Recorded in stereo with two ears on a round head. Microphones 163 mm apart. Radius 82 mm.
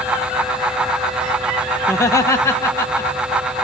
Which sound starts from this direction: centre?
Laughter, at 1.8 s.